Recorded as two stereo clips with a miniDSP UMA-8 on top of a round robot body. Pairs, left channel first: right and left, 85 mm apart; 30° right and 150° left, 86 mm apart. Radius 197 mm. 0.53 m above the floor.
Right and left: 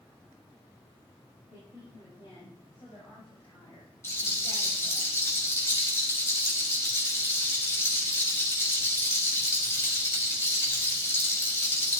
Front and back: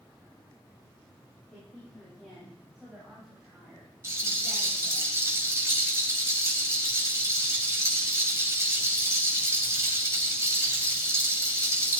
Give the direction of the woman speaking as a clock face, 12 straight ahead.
4 o'clock.